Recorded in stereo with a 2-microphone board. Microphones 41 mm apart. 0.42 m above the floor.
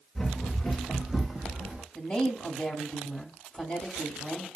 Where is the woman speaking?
20° left (ahead or behind), 1.7 m.